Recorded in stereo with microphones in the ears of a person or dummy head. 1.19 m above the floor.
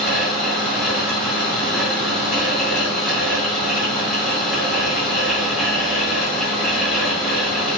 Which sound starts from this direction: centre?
A fan, at 0.0 s.